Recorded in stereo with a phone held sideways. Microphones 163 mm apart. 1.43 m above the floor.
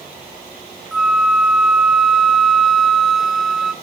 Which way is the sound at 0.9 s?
Centre (ahead or behind).